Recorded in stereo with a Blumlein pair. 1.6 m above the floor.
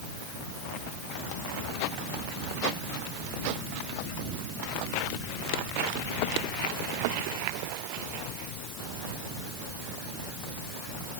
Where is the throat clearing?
I don't hear throat clearing.